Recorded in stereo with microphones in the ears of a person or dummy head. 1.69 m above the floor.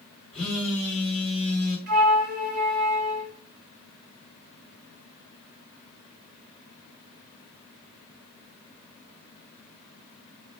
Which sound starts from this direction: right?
A flute, at 1.9 s.